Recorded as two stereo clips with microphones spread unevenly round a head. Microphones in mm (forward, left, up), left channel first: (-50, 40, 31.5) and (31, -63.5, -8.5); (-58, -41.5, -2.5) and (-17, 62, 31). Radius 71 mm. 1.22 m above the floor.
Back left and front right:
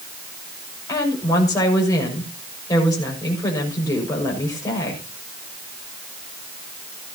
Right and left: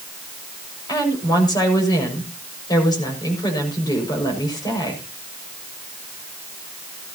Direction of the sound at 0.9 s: 165° right.